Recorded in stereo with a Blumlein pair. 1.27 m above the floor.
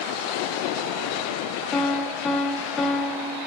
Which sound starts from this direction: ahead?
A piano, at 1.7 s.